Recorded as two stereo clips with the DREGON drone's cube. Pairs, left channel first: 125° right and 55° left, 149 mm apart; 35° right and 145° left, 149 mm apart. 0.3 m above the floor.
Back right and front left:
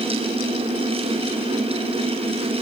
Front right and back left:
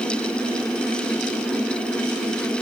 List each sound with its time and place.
Only background noise.